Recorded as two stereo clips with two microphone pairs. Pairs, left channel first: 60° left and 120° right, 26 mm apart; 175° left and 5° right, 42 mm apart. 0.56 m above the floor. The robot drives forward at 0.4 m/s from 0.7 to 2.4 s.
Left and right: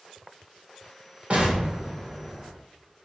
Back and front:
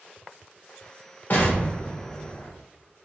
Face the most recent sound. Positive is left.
turn(degrees=-160)